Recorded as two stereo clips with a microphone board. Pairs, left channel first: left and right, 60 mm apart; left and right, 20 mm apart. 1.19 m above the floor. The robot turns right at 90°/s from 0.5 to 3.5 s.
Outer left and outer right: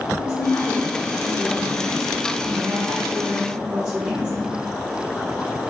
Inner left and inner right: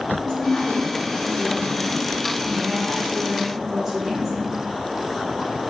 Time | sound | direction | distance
0.2 | a woman speaking | 50° left | 0.8 m